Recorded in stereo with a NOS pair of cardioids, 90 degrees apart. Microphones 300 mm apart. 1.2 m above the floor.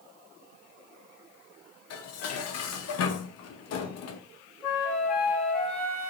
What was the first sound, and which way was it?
Dishes clattering, 55° left.